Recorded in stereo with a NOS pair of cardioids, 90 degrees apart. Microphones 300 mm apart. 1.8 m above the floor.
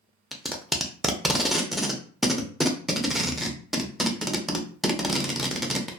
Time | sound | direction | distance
0.3 | tape being pulled | straight ahead | 0.5 m